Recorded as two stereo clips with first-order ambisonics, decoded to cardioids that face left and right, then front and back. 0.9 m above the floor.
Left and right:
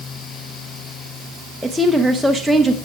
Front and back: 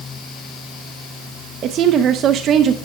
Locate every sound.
1.6 s a woman speaking: straight behind, 0.6 m